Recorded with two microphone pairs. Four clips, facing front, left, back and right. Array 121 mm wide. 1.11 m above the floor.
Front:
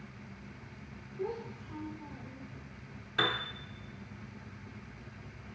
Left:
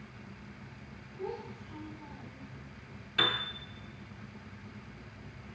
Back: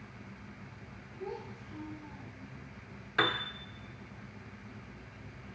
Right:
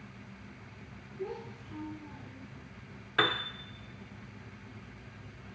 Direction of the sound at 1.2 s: Straight ahead.